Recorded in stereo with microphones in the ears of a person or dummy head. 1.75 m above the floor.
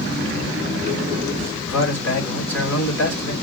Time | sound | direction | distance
1.7 | a man speaking | 20° left (ahead or behind) | 3 m